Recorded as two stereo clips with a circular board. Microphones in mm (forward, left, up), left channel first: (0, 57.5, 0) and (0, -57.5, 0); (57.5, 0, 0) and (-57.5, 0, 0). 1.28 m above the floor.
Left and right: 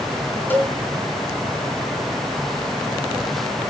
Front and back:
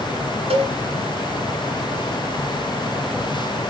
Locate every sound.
0.5 s a cowbell: 165° left, 2.5 m